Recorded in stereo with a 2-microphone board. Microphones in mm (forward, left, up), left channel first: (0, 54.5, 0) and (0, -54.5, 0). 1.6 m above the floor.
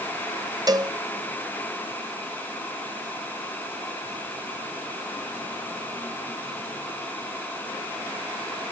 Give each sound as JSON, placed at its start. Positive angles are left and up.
{"t": 0.7, "sound": "a cowbell", "side_deg": -40, "distance_m": 0.9}